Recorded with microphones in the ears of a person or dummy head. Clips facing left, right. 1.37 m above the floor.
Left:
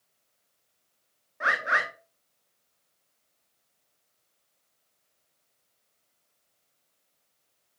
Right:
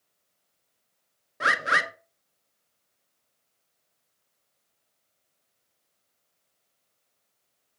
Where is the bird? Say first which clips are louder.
Right 2 dB; 40° right (ahead or behind), 0.5 m.